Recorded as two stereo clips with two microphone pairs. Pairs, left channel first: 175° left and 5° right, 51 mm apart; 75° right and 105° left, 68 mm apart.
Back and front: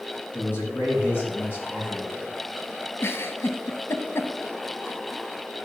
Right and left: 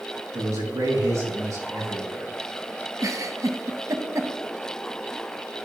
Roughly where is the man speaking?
Behind left.